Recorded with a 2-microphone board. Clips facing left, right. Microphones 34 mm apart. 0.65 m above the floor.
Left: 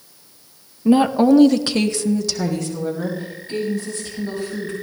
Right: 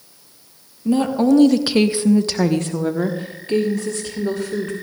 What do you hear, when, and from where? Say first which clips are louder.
0.8 s a woman speaking: left 3 dB; 25° left (ahead or behind), 0.8 m; by 4.7 s 70° right (ahead or behind), 2.0 m